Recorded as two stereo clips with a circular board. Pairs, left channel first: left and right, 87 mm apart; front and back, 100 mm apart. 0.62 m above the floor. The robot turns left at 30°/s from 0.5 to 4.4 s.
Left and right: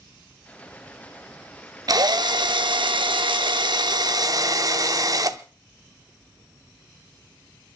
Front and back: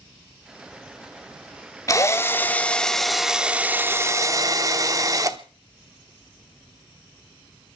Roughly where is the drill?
Ahead right.